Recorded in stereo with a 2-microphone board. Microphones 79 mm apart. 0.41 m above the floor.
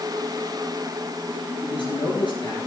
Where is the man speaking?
80° left, 5.5 m.